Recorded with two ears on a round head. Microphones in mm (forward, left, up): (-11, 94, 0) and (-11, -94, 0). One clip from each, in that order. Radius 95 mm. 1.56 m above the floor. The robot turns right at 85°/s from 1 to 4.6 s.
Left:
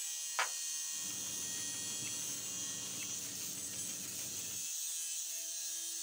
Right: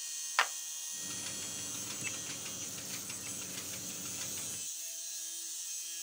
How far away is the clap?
About 0.6 m.